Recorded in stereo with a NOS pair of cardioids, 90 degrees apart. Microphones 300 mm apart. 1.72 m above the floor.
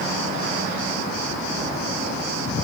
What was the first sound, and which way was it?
Only background noise.